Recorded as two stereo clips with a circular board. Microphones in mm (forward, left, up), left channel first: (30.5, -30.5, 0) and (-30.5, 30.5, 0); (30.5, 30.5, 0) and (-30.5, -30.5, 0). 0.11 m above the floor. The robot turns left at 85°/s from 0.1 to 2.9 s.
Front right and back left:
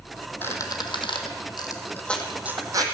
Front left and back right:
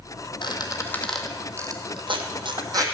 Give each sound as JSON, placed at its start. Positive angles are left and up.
{"t": 0.4, "sound": "a squeak", "azimuth_deg": 20, "distance_m": 1.4}